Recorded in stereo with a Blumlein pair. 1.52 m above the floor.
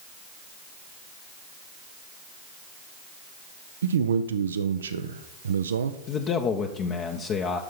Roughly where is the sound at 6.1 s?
Ahead left.